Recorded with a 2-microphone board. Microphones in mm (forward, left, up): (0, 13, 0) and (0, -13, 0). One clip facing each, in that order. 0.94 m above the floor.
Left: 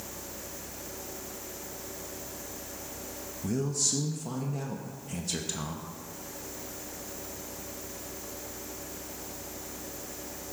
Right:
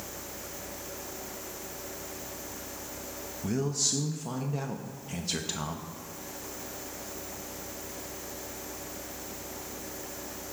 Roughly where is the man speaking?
Right.